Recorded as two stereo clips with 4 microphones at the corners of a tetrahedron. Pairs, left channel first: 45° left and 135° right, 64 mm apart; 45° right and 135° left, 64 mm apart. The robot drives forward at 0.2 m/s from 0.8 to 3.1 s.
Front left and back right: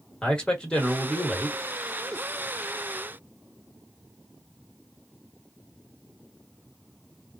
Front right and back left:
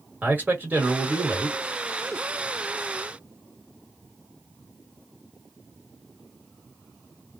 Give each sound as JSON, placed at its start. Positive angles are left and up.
{"t": 0.2, "sound": "a man speaking", "azimuth_deg": 105, "distance_m": 1.5}